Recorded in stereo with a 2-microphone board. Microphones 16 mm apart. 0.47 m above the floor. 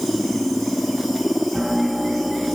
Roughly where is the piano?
Centre.